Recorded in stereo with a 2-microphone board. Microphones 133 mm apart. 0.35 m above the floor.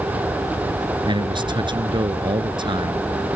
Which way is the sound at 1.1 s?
35° right (ahead or behind).